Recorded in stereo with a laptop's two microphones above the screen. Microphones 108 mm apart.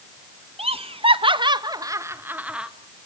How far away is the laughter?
About 1.2 m.